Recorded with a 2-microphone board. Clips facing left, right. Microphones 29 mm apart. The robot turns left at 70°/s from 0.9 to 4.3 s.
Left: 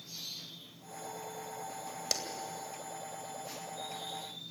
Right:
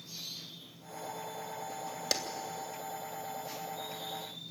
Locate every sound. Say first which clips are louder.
2.1 s a clap: right 2 dB; 10° right (ahead or behind), 2.5 m; by 2.2 s 15° right (ahead or behind), 2.5 m